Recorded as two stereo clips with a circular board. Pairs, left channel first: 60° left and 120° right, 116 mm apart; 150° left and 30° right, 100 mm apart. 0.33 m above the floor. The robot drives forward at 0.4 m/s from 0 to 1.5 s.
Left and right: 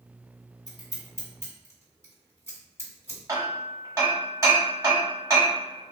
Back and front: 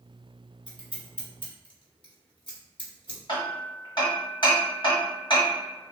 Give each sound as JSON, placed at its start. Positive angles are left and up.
{"t": 0.7, "sound": "scissors", "azimuth_deg": 115, "distance_m": 1.8}
{"t": 3.3, "sound": "hammering", "azimuth_deg": 180, "distance_m": 1.3}